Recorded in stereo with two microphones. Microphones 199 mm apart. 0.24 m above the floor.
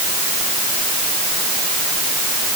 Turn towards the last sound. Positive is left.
No sound to turn to.